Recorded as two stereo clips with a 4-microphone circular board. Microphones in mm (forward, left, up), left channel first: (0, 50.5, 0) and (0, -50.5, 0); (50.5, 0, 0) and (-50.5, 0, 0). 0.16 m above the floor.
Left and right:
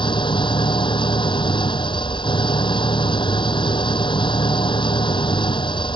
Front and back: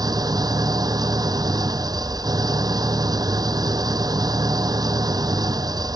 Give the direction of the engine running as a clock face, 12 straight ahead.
8 o'clock.